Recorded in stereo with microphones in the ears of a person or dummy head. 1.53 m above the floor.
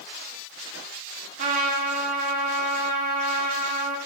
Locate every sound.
1.4 s a trumpet: 45° right (ahead or behind), 1.8 m